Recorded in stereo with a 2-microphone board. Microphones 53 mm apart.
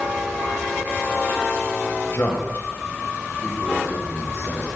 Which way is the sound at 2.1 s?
55° left (ahead or behind).